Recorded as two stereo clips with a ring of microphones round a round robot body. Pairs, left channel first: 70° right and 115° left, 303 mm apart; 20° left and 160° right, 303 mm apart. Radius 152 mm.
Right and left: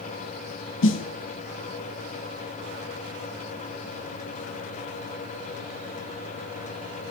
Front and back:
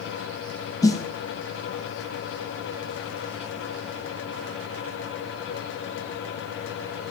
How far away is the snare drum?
About 1.0 m.